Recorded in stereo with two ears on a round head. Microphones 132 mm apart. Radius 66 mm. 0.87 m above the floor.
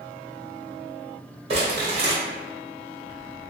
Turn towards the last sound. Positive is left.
turn(degrees=-40)  # may be behind; listen again after turning